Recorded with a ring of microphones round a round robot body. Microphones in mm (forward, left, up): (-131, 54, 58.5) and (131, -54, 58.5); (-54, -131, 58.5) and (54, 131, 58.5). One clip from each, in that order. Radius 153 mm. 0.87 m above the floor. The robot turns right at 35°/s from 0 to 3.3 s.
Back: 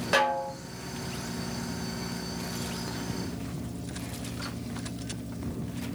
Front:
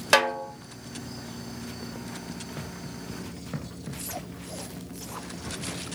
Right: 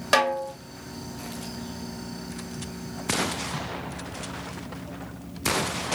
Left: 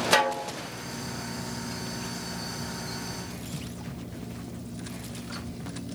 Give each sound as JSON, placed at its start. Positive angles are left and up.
{"t": 0.1, "sound": "a snare drum", "azimuth_deg": -15, "distance_m": 1.0}